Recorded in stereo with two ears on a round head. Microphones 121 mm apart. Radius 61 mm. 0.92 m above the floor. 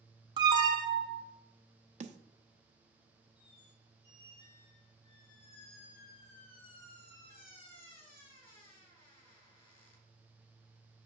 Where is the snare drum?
55° right (ahead or behind), 0.7 m.